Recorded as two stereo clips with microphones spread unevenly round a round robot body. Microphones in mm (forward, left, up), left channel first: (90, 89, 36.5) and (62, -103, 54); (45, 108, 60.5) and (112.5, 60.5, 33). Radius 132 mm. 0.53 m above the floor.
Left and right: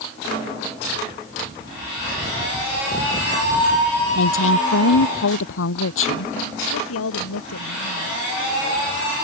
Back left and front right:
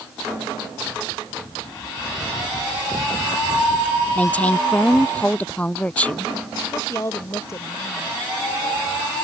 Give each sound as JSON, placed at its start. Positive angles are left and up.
{"t": 4.2, "sound": "a woman speaking", "azimuth_deg": 70}
{"t": 6.7, "sound": "a woman speaking", "azimuth_deg": 90}